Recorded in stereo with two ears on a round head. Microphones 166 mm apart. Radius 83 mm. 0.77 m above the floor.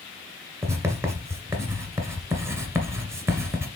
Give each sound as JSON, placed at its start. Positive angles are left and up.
{"t": 0.6, "sound": "writing", "side_deg": -15, "distance_m": 1.8}